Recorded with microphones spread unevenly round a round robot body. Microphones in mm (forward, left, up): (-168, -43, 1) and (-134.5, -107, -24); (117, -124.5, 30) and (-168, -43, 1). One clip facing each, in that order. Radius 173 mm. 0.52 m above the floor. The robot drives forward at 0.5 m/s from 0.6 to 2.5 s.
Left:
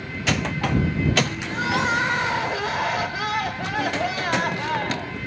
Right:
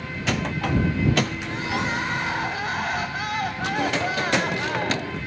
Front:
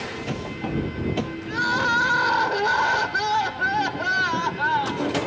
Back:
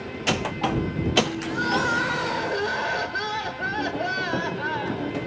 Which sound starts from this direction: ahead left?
Crying, at 1.5 s.